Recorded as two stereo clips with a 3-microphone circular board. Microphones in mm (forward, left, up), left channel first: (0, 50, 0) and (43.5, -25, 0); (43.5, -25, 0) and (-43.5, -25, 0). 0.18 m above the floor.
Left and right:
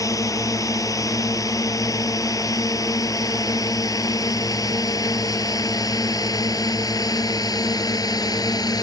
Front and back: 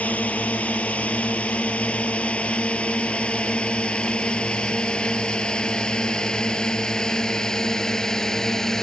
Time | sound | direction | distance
0.0 | a drone | 75° left | ?